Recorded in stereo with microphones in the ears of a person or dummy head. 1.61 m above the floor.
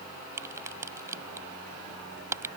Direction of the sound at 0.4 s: 15° right (ahead or behind).